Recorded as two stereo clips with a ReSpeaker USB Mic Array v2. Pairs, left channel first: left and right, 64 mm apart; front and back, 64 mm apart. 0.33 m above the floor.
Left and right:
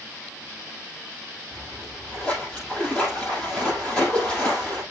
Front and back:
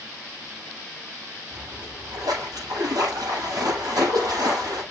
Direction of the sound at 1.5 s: 165° left.